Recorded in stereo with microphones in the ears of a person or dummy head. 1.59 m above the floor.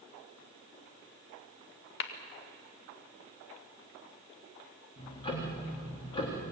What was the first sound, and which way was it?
A clap, 70° left (ahead or behind).